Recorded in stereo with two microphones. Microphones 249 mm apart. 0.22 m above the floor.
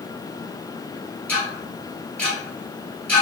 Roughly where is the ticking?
Centre.